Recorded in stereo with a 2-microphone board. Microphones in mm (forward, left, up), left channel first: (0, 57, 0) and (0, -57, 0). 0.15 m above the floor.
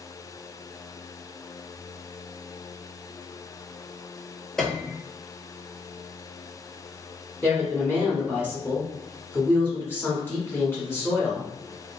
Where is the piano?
5° left (ahead or behind), 0.6 m.